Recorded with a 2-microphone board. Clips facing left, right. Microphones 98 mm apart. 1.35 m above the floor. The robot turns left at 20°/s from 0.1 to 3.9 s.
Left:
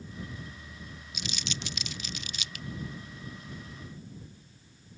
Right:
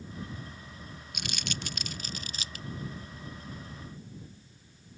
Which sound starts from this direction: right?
Crumpling, at 1.1 s.